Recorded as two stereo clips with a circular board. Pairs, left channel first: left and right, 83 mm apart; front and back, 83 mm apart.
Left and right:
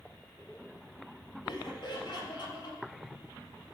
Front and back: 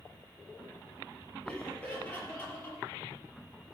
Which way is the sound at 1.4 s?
75° left.